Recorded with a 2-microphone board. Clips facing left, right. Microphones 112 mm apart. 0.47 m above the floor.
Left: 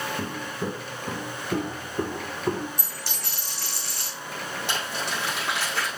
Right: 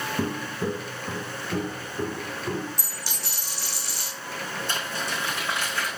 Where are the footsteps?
20° right (ahead or behind), 0.9 m; by 2.7 s 45° left (ahead or behind), 2.5 m.